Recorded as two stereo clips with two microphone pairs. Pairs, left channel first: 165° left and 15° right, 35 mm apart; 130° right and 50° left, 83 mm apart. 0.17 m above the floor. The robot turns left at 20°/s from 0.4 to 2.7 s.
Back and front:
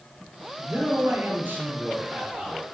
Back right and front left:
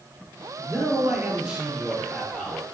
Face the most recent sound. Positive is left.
turn(degrees=-55)